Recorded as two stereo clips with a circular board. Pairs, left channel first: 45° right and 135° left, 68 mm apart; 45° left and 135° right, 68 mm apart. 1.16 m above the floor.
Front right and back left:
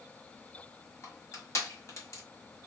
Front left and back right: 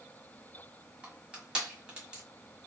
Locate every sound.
1.0 s crushing: 65° right, 1.6 m